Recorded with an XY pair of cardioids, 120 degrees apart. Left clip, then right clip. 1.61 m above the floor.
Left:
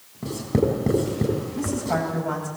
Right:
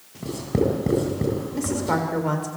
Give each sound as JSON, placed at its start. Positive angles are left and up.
{"t": 0.2, "sound": "writing", "azimuth_deg": 5, "distance_m": 7.0}
{"t": 1.5, "sound": "a woman speaking", "azimuth_deg": -65, "distance_m": 7.0}